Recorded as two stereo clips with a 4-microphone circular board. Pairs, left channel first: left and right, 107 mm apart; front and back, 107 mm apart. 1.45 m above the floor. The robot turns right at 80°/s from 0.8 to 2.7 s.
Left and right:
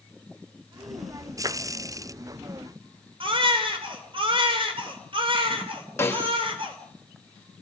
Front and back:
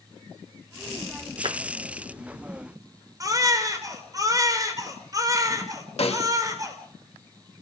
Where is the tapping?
145° right, 0.7 m; by 1.6 s 130° right, 0.7 m.